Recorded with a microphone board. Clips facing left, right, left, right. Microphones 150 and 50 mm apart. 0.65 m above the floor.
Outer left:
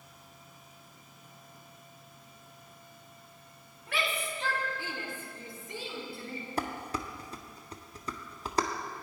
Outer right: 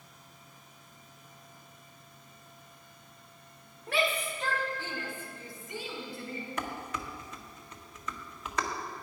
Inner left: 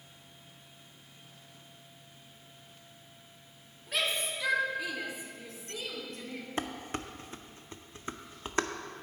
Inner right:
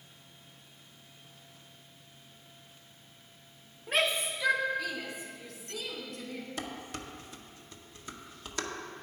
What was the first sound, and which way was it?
A shout, 35° right (ahead or behind).